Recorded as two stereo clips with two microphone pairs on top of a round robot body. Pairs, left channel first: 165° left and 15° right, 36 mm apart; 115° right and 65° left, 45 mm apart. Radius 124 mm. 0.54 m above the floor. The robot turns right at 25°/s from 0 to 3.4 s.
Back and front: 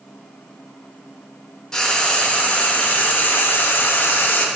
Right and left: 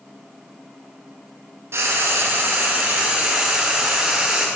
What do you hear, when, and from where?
1.7 s frying: 95° left, 0.6 m; by 4.5 s 135° left, 0.6 m